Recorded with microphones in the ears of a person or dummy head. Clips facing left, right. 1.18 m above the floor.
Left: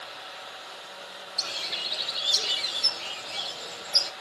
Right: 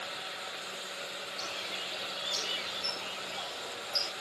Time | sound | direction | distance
1.4 | a bird | 20° left (ahead or behind) | 1.4 m